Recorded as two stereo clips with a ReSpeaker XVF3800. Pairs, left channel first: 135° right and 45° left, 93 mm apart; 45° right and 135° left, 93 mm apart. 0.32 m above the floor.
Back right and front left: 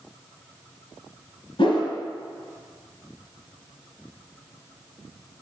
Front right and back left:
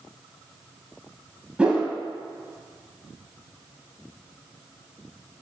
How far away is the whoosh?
About 0.8 m.